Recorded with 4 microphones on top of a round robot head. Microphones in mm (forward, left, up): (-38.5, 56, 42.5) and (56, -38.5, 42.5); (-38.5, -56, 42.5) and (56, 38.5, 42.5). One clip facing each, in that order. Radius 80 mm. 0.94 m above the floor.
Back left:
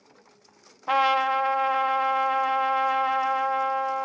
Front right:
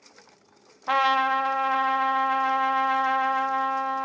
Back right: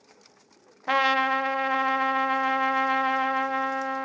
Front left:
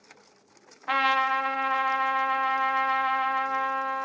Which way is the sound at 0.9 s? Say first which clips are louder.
Back left 1 dB, back right 2 dB; 140° right.